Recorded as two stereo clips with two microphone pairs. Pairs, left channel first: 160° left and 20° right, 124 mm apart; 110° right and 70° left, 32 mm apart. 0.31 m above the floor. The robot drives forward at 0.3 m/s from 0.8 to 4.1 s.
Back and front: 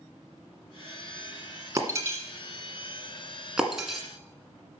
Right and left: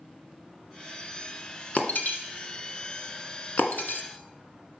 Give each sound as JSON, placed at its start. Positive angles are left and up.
{"t": 1.8, "sound": "breaking glass", "azimuth_deg": -80, "distance_m": 1.4}